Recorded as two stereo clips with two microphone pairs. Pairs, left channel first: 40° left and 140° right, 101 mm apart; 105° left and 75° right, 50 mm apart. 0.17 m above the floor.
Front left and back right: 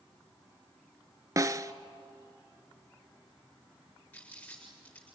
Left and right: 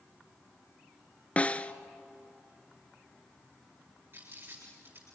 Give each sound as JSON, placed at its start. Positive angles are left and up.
{"t": 1.4, "sound": "a snare drum", "azimuth_deg": 165, "distance_m": 0.6}
{"t": 4.1, "sound": "crumpling", "azimuth_deg": -35, "distance_m": 8.0}